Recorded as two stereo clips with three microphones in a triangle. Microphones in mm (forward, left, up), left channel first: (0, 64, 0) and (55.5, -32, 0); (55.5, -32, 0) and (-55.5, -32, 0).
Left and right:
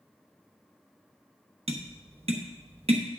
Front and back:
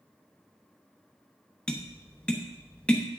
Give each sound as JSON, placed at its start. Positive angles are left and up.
{"t": 1.7, "sound": "tapping", "azimuth_deg": -80, "distance_m": 1.0}